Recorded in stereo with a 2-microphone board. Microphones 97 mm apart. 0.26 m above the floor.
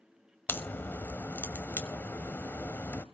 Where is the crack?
20° left (ahead or behind), 0.9 m.